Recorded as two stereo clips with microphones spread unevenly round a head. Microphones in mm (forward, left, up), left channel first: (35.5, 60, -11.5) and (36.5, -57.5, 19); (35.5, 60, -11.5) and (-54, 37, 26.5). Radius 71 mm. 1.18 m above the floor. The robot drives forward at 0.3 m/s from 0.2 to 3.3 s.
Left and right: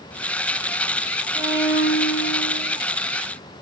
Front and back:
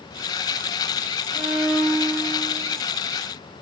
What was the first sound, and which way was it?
A violin, 160° right.